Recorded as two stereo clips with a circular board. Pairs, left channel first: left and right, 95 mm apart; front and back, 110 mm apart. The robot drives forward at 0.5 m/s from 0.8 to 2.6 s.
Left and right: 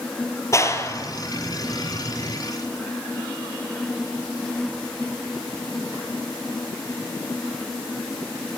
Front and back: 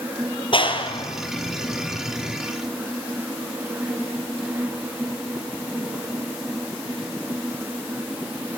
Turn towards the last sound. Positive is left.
turn(degrees=50)